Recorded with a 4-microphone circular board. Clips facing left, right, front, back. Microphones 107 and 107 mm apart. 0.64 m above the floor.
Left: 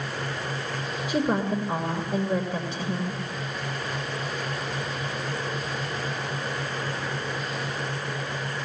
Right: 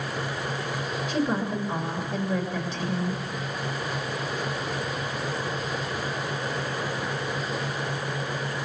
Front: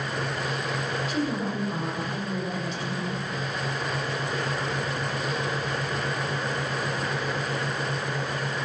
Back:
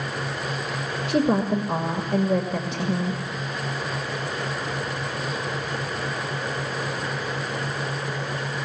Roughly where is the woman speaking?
Behind left.